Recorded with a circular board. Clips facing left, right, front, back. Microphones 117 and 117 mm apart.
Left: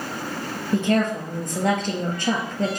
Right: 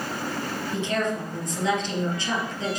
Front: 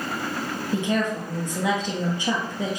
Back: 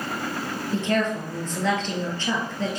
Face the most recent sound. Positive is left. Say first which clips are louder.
# left 6 dB, back 1 dB
turn(degrees=75)